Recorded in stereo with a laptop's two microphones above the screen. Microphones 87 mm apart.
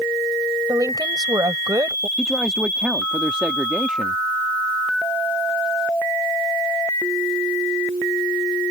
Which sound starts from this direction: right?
A woman speaking, at 0.7 s.